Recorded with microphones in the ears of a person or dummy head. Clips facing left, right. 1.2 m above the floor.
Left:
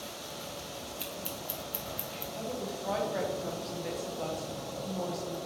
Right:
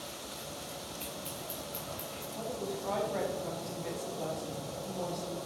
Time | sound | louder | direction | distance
1.0 | scissors | left 2 dB | 15° left (ahead or behind) | 1.0 m
2.4 | a woman speaking | even | 5° left (ahead or behind) | 1.0 m